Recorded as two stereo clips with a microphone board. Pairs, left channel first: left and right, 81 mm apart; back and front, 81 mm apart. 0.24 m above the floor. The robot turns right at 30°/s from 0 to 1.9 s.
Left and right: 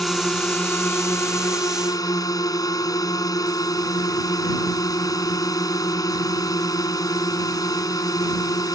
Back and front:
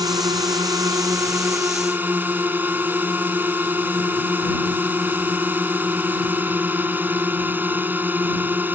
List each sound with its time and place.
0.0 s a drone: 5° left; by 8.8 s 60° left